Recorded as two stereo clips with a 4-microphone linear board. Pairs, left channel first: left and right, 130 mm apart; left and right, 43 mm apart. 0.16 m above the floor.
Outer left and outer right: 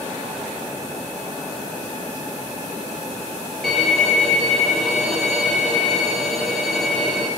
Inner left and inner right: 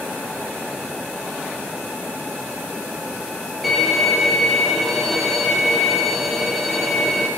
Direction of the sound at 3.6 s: Centre (ahead or behind).